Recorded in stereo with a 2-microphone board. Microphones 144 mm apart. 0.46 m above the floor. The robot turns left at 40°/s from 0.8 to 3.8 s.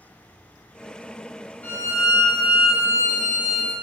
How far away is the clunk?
I don't hear a clunk.